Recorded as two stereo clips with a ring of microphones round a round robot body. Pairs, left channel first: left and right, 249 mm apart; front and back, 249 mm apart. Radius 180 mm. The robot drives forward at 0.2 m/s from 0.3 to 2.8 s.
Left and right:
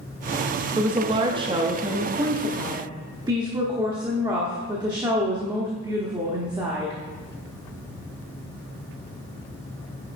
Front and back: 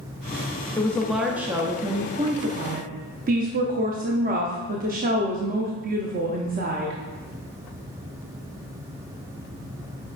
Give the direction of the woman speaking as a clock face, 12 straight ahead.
2 o'clock.